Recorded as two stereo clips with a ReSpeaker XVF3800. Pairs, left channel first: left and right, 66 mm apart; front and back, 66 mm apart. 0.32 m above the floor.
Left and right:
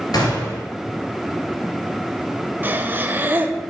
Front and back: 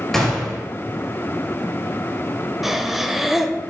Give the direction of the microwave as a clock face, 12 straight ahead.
No microwave in this recording.